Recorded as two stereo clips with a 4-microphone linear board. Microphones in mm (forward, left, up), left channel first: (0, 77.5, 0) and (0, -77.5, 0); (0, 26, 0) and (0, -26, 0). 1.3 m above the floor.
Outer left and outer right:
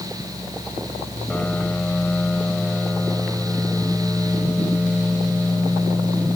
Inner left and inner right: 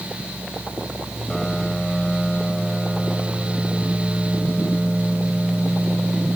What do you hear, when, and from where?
1.3 s a piano: 10° left (ahead or behind)